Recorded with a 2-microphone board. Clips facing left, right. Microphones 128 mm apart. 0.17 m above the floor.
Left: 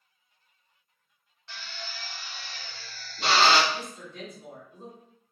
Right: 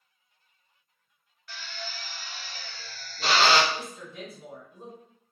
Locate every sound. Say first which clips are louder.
1.5 s a drill: right 2 dB; 25° left (ahead or behind), 0.8 m
3.7 s a woman speaking: even; 5° right (ahead or behind), 1.6 m